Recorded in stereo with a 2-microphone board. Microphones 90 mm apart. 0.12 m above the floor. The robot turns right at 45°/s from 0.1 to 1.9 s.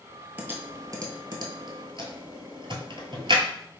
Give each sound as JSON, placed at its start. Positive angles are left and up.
{"t": 0.4, "sound": "typing on a keyboard", "side_deg": -20, "distance_m": 0.7}